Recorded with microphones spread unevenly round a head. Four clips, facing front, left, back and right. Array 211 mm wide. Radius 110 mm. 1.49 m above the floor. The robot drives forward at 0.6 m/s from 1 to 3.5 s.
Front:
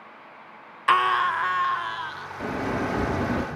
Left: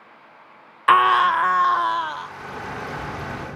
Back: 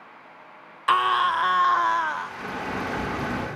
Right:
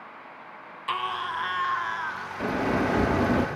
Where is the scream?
90° left, 0.6 m; by 2.3 s 140° left, 1.0 m.